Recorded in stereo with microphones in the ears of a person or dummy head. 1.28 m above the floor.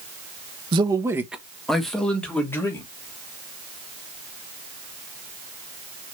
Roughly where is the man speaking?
Right.